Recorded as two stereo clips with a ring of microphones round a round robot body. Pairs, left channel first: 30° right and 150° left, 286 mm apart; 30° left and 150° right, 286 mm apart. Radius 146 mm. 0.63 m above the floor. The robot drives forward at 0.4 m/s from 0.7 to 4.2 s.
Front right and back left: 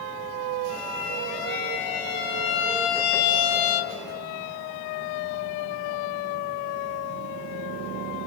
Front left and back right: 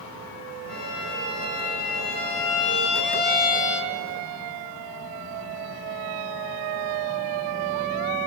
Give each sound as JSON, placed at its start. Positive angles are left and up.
{"t": 0.7, "sound": "a violin", "azimuth_deg": -10, "distance_m": 1.7}